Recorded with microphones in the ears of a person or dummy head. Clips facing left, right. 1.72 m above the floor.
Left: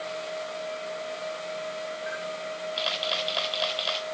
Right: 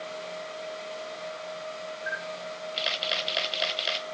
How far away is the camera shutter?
About 1.3 m.